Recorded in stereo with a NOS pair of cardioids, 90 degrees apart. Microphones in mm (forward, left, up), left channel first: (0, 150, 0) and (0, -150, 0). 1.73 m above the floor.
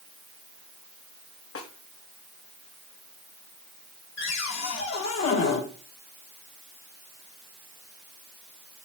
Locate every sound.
1.6 s a snare drum: 50° left, 3 m
4.2 s a cupboard door: 65° left, 4 m